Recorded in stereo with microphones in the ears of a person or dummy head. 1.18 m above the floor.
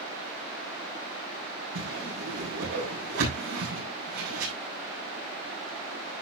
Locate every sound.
1.8 s a whoosh: 85° right, 7.5 m